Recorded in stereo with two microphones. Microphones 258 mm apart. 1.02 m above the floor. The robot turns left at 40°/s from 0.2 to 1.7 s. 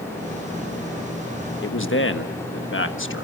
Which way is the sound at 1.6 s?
45° left (ahead or behind).